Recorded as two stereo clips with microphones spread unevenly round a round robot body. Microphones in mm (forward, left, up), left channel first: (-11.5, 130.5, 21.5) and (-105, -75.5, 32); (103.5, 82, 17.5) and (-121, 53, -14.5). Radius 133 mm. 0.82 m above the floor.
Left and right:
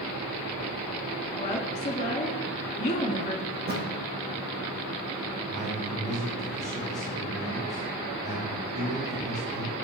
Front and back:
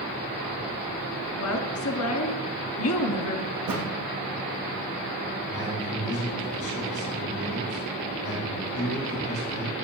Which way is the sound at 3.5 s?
160° right.